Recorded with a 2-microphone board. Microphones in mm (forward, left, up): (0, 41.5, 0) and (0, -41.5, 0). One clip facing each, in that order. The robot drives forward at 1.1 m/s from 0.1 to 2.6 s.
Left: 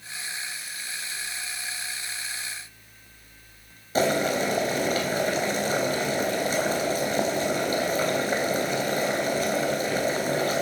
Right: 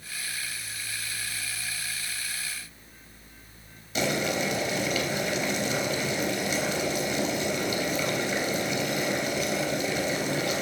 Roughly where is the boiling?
Left.